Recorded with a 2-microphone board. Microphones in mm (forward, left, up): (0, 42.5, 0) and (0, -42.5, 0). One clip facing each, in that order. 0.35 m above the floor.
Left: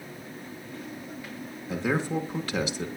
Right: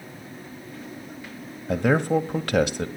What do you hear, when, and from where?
1.7 s a man speaking: 55° right (ahead or behind), 1.5 m